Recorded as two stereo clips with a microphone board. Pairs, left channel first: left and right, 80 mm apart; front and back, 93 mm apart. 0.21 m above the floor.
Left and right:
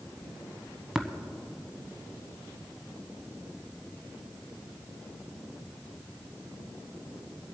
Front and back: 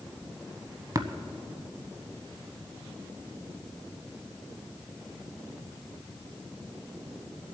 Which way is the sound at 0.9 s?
175° right.